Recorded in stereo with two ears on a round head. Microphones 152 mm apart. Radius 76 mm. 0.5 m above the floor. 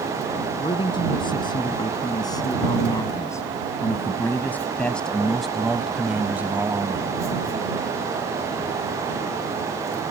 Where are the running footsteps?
No running footsteps in this recording.